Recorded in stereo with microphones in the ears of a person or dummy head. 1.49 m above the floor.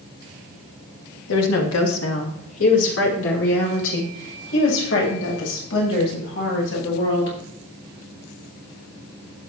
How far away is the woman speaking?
About 2.5 m.